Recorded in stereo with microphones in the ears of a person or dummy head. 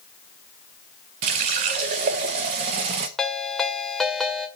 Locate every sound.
1.2 s a running tap: 35° right (ahead or behind), 0.8 m
3.2 s a ringtone: centre (ahead or behind), 2.5 m